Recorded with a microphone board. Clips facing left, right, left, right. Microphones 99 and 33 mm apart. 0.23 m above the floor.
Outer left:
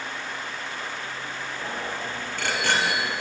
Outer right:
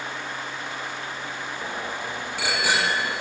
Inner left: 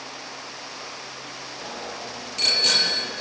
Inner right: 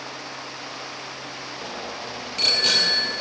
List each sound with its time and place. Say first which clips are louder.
1.6 s a bicycle bell: even, even; 5° right (ahead or behind), 5 m